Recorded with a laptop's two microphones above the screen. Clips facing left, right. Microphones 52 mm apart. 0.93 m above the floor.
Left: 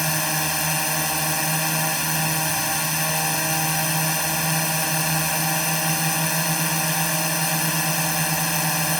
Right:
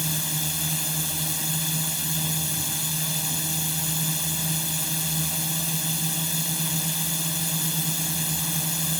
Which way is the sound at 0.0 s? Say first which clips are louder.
Left 7 dB; 70° left (ahead or behind).